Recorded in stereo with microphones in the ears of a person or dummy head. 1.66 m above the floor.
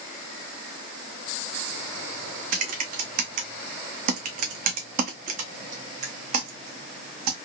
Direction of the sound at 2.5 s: 40° right (ahead or behind).